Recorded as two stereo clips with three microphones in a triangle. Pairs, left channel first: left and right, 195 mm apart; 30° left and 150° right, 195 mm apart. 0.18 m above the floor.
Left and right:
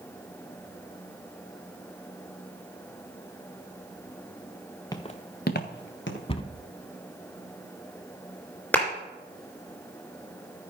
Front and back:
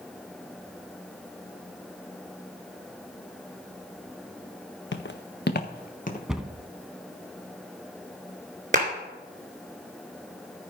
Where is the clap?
170° left, 3 m.